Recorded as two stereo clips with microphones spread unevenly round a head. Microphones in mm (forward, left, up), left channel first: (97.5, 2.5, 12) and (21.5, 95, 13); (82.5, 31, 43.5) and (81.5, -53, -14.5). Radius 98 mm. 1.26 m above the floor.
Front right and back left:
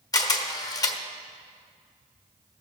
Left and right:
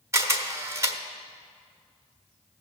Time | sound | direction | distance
0.1 | a camera shutter | 5° right | 1.2 m